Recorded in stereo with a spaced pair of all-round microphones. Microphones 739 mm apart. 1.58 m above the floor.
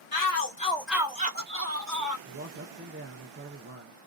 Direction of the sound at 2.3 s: 20° right (ahead or behind).